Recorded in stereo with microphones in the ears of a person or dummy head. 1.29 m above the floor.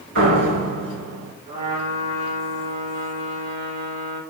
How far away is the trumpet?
About 3.5 m.